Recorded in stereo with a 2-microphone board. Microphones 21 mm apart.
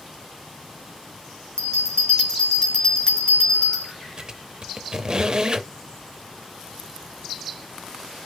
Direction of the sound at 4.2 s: 35° right (ahead or behind).